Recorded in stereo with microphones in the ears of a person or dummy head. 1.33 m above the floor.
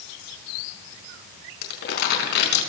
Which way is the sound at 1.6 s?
65° left (ahead or behind).